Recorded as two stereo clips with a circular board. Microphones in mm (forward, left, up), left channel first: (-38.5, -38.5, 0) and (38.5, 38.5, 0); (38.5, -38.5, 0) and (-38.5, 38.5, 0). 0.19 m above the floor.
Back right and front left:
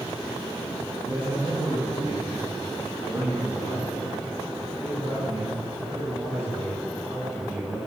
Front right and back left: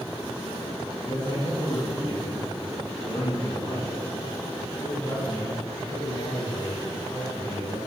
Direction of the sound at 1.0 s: 10° right.